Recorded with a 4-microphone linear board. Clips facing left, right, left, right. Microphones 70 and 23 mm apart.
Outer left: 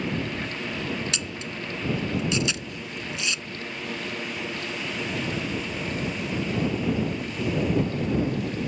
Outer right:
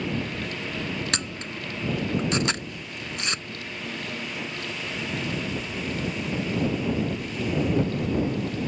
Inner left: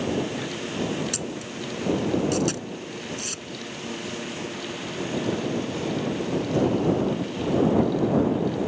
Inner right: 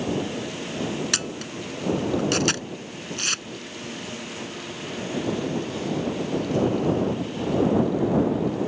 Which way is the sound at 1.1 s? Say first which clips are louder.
Outer right 1 dB, inner right 4 dB; 50° right (ahead or behind).